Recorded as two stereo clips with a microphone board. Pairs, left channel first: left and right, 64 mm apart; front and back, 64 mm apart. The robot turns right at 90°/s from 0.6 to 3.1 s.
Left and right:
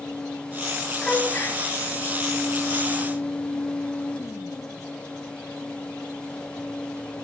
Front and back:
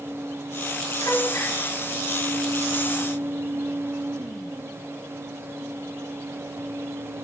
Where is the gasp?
Straight ahead, 3.5 m; by 1.6 s 55° left, 3.5 m.